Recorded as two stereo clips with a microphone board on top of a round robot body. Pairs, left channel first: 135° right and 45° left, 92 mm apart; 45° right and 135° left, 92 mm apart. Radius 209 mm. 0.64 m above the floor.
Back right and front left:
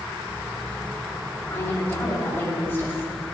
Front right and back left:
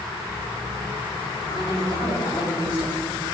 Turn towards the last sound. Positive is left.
turn(degrees=-70)